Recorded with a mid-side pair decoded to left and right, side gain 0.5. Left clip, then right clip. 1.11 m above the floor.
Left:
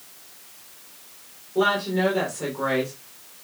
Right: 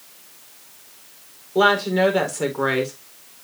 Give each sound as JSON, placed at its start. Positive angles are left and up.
{"t": 1.6, "sound": "a woman speaking", "azimuth_deg": -50, "distance_m": 4.5}